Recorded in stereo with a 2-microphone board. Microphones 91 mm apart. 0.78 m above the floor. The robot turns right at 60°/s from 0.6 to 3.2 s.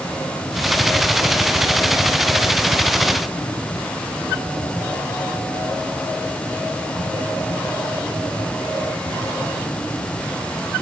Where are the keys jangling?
No keys jangling in this recording.